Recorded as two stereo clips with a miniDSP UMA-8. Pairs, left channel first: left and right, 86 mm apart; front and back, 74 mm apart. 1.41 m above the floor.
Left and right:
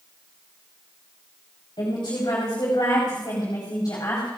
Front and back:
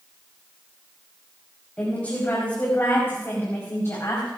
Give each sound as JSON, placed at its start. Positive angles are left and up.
{"t": 1.8, "sound": "a woman speaking", "azimuth_deg": 70, "distance_m": 4.5}